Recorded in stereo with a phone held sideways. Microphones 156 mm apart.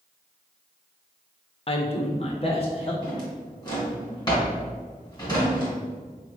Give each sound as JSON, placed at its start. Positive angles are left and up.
{"t": 1.7, "sound": "a man speaking", "side_deg": 40, "distance_m": 0.5}
{"t": 3.0, "sound": "a drawer", "side_deg": 25, "distance_m": 1.4}